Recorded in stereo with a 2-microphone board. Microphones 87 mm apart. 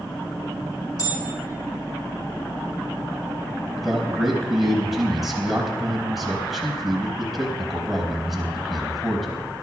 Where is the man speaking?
5° right (ahead or behind), 3.5 m.